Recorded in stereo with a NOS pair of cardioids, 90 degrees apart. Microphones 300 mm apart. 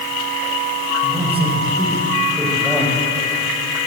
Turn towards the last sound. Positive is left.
turn(degrees=5)